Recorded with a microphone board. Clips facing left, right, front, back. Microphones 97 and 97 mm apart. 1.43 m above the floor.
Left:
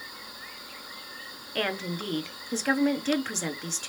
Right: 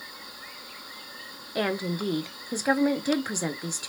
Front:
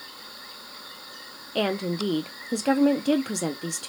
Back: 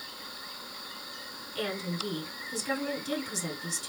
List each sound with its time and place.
1.6 s a woman speaking: 15° right, 0.8 m